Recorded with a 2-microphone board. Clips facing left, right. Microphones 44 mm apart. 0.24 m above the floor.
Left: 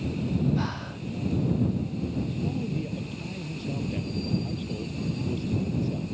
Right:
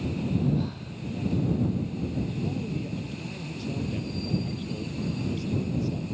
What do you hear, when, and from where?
0.6 s breathing: 80° left
2.4 s a man speaking: 10° left (ahead or behind)